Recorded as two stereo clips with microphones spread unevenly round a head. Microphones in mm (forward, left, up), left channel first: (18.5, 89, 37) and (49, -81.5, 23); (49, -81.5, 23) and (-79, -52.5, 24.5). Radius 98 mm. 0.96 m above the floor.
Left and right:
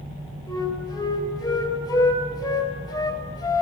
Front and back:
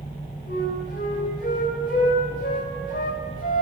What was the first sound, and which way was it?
A flute, 35° left.